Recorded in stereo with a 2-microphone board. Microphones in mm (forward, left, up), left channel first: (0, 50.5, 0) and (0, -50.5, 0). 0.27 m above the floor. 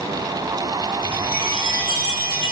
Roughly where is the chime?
Left.